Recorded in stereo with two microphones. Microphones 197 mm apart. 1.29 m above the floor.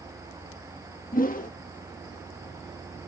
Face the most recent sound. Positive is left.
turn(degrees=45)  # may be behind; listen again after turning